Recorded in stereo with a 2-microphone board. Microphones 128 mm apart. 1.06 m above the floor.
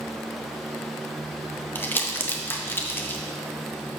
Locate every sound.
1.8 s crumpling: 15° left (ahead or behind), 0.7 m